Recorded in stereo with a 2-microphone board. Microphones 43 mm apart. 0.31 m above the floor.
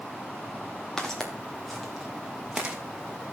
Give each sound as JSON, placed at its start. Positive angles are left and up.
{"t": 1.0, "sound": "footsteps", "side_deg": 10, "distance_m": 3.5}